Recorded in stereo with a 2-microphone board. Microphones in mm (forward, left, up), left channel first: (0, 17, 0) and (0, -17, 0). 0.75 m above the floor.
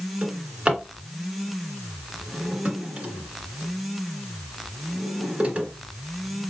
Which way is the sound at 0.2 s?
30° right (ahead or behind).